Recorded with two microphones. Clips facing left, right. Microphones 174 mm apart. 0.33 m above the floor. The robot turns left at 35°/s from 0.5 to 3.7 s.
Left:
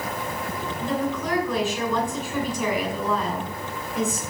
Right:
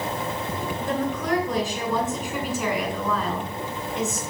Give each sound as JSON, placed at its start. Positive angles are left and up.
{"t": 0.8, "sound": "a woman speaking", "azimuth_deg": -115, "distance_m": 3.0}